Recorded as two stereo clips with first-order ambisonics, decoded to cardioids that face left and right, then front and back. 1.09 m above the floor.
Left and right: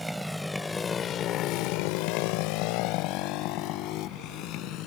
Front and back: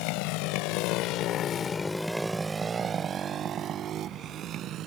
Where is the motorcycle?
5° right; by 4.9 s 130° left.